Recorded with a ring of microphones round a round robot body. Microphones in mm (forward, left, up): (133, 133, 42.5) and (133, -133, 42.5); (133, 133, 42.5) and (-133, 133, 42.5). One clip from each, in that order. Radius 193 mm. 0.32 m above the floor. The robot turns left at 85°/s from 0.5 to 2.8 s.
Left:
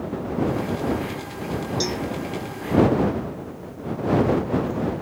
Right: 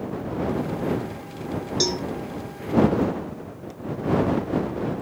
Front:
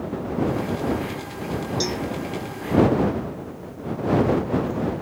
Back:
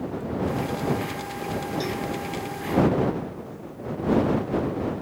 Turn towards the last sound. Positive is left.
turn(degrees=-145)